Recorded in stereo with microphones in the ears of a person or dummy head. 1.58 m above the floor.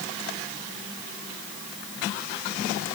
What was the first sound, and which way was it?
Only background noise.